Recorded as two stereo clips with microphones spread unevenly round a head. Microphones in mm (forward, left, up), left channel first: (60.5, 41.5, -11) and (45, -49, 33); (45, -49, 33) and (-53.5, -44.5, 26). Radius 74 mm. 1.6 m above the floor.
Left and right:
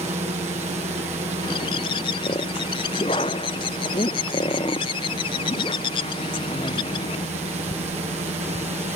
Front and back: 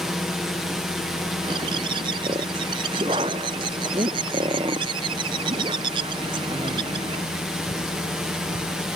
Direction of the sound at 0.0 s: 100° right.